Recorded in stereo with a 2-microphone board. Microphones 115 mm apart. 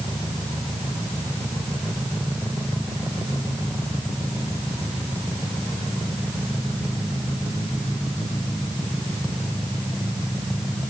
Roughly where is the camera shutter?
I don't hear a camera shutter.